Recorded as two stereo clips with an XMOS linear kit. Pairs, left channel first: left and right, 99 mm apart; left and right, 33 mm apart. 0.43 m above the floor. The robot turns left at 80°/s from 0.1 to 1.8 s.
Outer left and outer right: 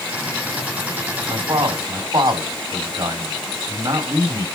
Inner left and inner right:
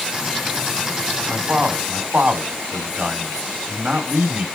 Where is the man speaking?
65° right (ahead or behind), 2.5 m; by 4.5 s 50° right (ahead or behind), 2.5 m.